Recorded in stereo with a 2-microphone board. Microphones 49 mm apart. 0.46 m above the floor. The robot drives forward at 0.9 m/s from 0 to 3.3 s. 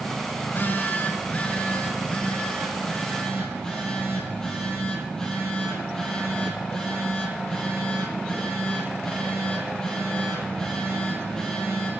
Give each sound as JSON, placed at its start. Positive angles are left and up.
{"t": 0.4, "sound": "a phone buzzing", "side_deg": 50, "distance_m": 0.9}